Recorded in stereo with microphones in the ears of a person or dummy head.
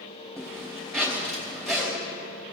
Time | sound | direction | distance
0.4 | a zipper | 5° left (ahead or behind) | 3.5 m